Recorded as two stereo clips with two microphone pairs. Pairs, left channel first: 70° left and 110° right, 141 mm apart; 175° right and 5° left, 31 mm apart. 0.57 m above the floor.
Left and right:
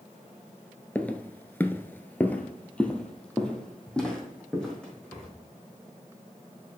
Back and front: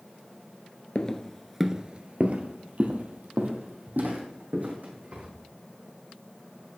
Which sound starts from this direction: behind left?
Footsteps, at 0.9 s.